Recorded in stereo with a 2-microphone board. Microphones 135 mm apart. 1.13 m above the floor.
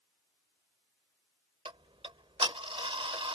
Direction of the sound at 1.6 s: 40° right (ahead or behind).